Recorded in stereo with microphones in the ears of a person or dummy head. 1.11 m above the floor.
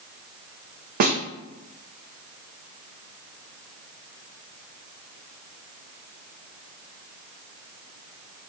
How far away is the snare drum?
About 0.6 m.